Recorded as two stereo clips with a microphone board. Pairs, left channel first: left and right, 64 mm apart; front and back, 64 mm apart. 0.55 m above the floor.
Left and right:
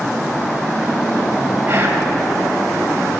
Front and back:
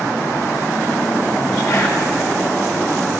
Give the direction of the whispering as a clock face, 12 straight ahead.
1 o'clock.